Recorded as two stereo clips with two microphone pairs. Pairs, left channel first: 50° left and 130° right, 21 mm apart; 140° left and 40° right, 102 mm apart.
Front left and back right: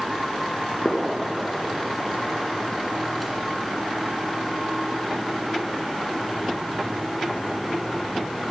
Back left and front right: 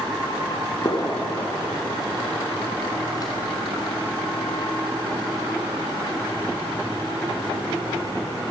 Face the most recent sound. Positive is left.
turn(degrees=140)